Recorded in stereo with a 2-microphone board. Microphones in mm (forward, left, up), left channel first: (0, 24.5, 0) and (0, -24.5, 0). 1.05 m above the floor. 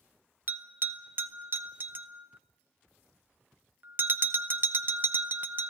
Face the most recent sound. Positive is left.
turn(degrees=-40)  # may be behind; listen again after turning